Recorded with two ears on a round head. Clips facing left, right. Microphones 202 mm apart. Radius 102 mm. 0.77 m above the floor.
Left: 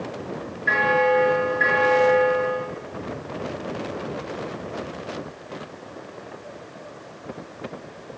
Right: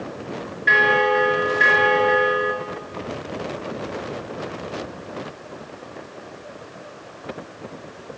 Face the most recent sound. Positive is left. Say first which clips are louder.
# even
turn(degrees=-50)  # may be behind; listen again after turning